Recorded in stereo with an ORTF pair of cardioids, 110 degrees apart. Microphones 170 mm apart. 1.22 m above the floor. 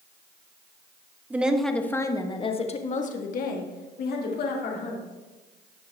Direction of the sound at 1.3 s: 10° right.